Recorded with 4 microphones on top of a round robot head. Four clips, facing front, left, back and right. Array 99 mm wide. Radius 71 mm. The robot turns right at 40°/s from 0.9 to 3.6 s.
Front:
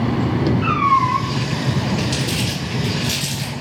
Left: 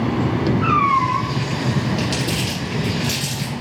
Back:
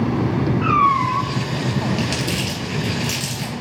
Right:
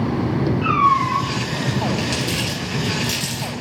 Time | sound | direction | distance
0.6 | a cat meowing | 140° left | 2.5 m
2.0 | crumpling | 170° left | 3.5 m